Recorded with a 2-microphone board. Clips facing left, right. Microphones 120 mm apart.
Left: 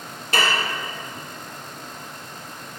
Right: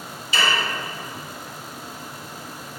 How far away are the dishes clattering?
About 0.6 m.